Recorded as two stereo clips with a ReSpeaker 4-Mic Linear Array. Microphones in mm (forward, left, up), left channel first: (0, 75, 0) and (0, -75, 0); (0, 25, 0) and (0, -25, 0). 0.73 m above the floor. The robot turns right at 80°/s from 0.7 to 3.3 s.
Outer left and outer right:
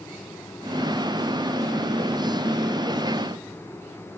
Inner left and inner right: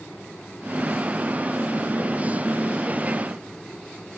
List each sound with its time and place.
Only background noise.